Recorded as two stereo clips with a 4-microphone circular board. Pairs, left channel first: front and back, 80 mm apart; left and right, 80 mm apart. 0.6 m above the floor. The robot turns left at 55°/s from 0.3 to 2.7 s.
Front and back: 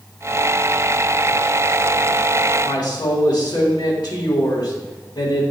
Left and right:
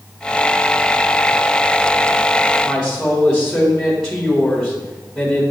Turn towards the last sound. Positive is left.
turn(degrees=0)